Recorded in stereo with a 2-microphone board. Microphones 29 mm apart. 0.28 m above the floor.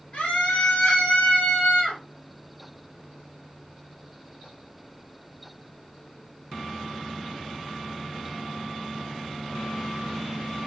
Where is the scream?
60° left (ahead or behind), 3.5 m; by 2.0 s 70° left (ahead or behind), 3.5 m.